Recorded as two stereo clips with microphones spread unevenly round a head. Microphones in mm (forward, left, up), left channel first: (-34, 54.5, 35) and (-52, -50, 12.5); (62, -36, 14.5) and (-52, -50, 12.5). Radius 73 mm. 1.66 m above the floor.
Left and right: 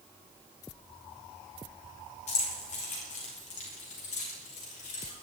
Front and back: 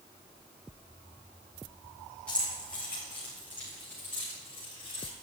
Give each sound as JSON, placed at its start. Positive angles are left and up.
{"t": 2.3, "sound": "keys jangling", "azimuth_deg": 90, "distance_m": 4.0}